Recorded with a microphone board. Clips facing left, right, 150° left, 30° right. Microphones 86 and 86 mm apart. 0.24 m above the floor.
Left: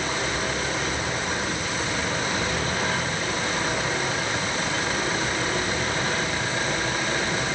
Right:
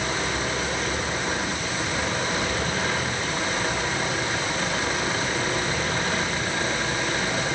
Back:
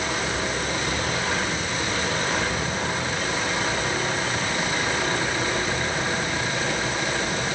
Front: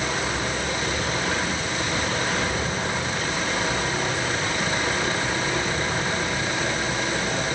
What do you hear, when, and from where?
Only background noise.